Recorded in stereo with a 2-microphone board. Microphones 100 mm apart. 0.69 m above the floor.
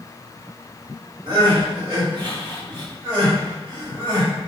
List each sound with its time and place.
1.3 s crying: 60° right (ahead or behind), 1.9 m